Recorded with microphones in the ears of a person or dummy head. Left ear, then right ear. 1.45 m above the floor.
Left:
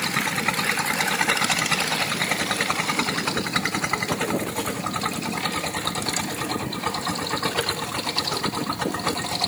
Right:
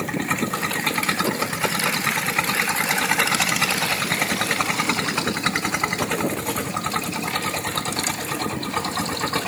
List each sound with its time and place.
Only background noise.